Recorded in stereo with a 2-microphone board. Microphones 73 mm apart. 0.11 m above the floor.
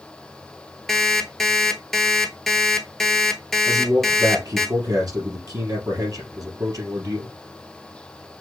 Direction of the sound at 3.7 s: 50° right (ahead or behind).